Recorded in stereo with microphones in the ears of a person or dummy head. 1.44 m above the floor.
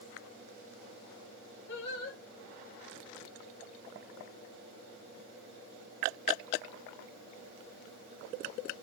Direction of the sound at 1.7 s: 70° left (ahead or behind).